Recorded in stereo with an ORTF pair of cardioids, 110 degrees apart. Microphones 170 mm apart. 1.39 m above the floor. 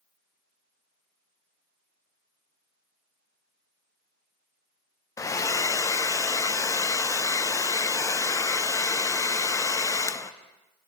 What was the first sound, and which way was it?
A hair dryer, 20° left.